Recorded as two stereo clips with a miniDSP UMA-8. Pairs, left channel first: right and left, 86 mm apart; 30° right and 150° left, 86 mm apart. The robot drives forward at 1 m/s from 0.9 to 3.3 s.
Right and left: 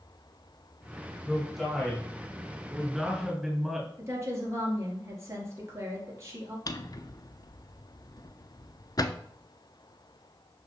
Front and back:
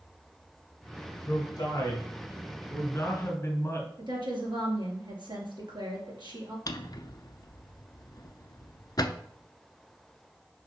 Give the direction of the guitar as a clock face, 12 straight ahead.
I don't hear a guitar.